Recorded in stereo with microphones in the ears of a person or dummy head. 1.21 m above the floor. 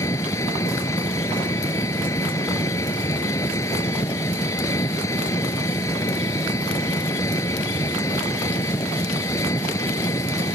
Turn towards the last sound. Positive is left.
turn(degrees=15)  # may be behind; listen again after turning